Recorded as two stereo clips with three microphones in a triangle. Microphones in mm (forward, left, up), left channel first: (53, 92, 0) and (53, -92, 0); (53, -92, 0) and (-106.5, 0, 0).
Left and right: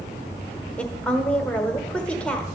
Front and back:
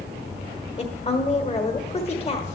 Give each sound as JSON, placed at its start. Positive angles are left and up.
{"t": 0.8, "sound": "a woman speaking", "azimuth_deg": 10, "distance_m": 1.3}